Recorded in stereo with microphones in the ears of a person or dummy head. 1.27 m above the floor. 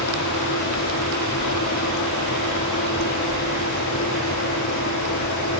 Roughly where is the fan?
Left.